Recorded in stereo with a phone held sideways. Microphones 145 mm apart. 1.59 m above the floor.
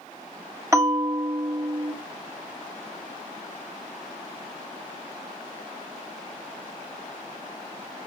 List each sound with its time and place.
0.7 s a bell: 20° right (ahead or behind), 2 m